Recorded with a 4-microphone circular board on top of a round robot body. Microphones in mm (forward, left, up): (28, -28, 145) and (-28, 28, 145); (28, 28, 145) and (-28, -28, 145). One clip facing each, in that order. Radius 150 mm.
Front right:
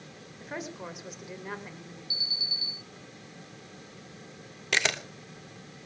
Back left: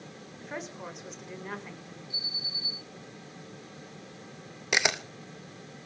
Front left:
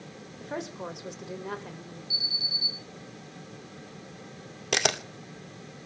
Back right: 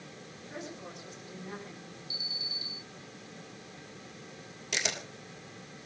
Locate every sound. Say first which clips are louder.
0.4 s a woman speaking: front right 1 dB, front left 8 dB; 40° left, 4 m
2.1 s an alarm: front right 1 dB, front left 4 dB; 45° right, 8 m
4.7 s a camera shutter: back left 1 dB, front left 8 dB; 60° left, 1.9 m